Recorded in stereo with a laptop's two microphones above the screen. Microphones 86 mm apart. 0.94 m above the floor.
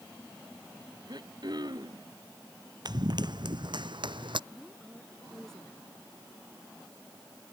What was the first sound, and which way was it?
Throat clearing, 50° right (ahead or behind).